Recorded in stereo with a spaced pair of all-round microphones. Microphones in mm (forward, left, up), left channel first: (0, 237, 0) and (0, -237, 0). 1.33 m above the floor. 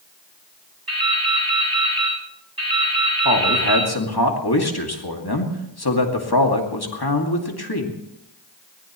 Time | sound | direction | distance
0.9 | dripping | 50° right (ahead or behind) | 9.5 m
3.2 | a man speaking | 50° left (ahead or behind) | 2.5 m